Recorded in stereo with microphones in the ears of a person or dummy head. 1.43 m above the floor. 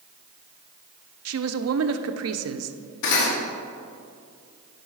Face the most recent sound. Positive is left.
turn(degrees=70)  # may be behind; listen again after turning